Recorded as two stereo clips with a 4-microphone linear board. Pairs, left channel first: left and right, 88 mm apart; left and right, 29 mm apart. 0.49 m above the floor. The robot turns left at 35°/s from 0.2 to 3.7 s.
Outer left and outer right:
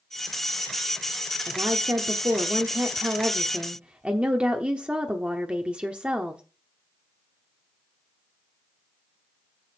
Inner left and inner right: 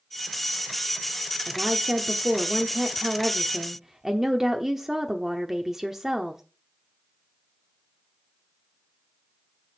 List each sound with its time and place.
1.5 s a woman speaking: 70° right, 1.0 m; by 6.4 s 150° right, 1.0 m